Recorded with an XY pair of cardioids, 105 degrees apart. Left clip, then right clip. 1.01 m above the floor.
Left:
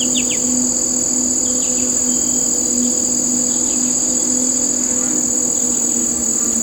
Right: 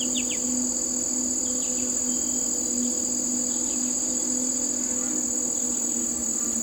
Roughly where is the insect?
Ahead left.